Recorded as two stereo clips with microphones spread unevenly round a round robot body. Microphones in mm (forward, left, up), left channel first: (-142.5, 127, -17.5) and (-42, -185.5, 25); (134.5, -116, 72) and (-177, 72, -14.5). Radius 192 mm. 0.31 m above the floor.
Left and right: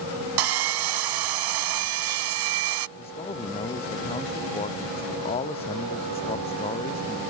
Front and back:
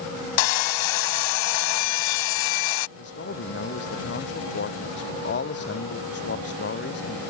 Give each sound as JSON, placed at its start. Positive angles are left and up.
{"t": 0.4, "sound": "sawing", "azimuth_deg": -40}
{"t": 3.0, "sound": "a man speaking", "azimuth_deg": 30}